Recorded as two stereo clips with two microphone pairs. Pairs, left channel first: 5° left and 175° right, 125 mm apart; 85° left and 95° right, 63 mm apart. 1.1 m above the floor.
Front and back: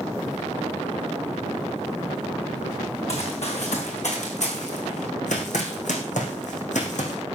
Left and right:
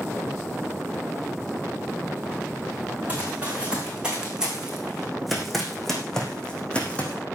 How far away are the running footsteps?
About 6 m.